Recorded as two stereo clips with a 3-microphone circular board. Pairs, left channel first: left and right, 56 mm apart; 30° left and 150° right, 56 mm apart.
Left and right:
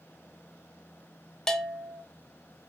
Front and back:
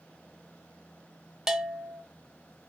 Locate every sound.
1.5 s a bell: 150° left, 0.9 m